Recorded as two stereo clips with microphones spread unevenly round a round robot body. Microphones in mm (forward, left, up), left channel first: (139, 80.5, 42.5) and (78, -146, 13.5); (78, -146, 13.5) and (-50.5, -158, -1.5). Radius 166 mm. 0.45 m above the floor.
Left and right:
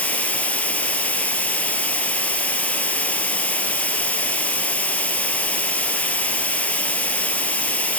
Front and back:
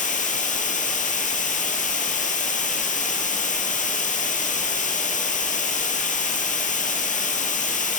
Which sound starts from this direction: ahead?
Running water, at 0.0 s.